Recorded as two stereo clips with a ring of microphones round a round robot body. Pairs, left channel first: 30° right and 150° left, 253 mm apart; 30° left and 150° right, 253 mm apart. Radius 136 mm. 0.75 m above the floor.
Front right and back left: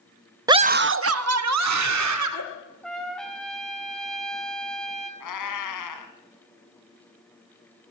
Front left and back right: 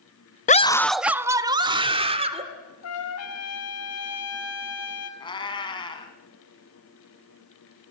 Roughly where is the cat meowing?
Ahead right.